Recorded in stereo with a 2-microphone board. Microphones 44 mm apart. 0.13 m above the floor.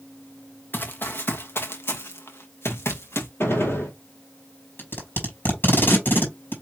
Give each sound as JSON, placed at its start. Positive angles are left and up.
{"t": 0.7, "sound": "running footsteps", "side_deg": 50, "distance_m": 1.0}
{"t": 3.4, "sound": "a gunshot", "side_deg": 70, "distance_m": 2.5}
{"t": 4.8, "sound": "tape being pulled", "side_deg": 60, "distance_m": 3.0}